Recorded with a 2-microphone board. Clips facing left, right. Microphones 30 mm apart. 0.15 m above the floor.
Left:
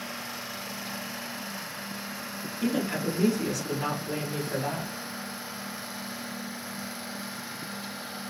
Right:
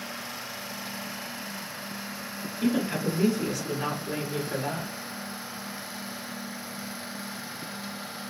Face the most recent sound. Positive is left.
turn(degrees=-30)  # may be behind; listen again after turning